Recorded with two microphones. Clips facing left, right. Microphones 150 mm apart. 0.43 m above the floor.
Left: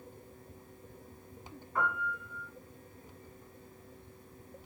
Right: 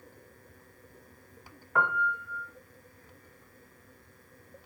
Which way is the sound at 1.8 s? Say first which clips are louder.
Right 5 dB; 70° right (ahead or behind).